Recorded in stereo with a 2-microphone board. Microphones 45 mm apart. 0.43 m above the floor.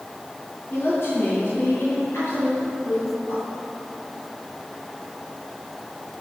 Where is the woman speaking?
60° left (ahead or behind), 5.5 m; by 3.4 s 70° left (ahead or behind), 9 m.